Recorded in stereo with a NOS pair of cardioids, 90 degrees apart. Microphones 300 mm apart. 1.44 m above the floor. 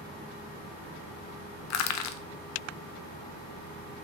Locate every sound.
1.7 s crushing: 70° left, 0.5 m